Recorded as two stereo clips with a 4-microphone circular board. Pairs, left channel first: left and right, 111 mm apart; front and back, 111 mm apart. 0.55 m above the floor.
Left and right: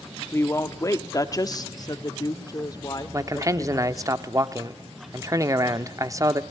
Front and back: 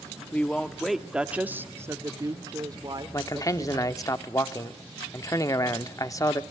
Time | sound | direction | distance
0.3 | a woman speaking | 55° left | 1.0 m
3.1 | a man speaking | 45° right | 0.9 m